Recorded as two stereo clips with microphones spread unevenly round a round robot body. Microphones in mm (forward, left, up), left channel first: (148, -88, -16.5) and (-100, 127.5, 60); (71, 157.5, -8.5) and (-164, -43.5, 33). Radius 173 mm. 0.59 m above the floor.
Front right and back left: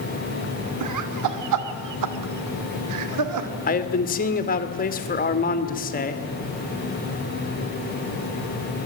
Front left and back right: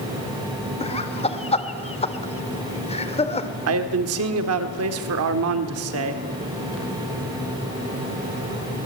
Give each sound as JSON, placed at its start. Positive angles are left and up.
{"t": 0.8, "sound": "laughter", "azimuth_deg": 105, "distance_m": 2.5}
{"t": 3.7, "sound": "a man speaking", "azimuth_deg": -95, "distance_m": 1.9}